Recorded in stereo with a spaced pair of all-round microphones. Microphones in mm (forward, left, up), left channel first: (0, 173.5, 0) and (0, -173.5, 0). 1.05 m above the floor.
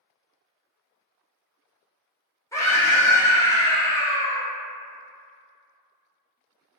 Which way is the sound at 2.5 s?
10° left (ahead or behind).